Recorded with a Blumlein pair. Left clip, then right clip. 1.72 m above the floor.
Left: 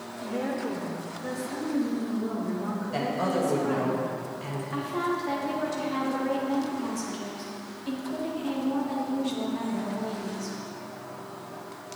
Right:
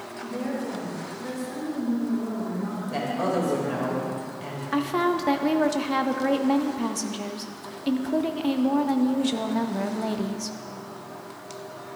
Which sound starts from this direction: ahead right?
A woman speaking, at 4.7 s.